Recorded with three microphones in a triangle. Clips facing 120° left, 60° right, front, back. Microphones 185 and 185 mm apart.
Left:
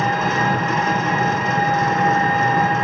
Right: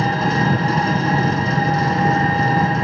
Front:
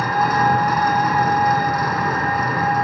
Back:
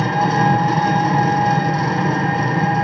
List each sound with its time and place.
0.0 s an engine running: 115° right, 3 m